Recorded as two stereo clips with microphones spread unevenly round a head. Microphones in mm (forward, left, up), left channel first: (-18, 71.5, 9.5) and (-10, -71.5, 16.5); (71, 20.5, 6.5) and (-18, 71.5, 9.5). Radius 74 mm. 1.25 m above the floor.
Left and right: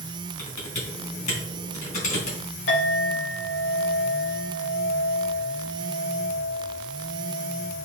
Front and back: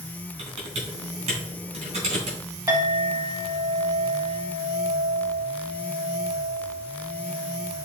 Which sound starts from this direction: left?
A clink, at 2.7 s.